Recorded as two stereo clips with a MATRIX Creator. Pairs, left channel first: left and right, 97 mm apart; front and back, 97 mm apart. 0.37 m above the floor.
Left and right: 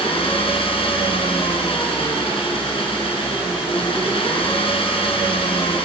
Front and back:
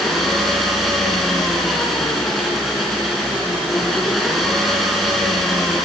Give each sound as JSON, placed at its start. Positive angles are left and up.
{"t": 0.0, "sound": "an engine running", "azimuth_deg": 90, "distance_m": 4.0}